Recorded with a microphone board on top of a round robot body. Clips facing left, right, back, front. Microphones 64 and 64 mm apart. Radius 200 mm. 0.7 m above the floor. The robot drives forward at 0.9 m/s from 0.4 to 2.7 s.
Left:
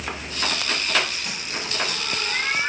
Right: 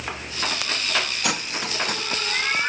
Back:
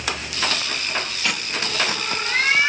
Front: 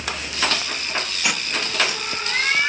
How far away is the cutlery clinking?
About 0.6 m.